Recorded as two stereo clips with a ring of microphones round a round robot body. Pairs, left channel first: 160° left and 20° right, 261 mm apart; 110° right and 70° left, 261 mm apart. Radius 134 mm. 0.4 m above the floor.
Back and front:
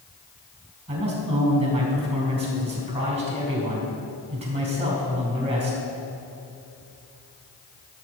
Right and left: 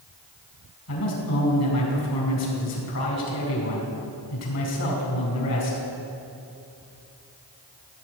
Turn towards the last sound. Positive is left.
turn(degrees=-90)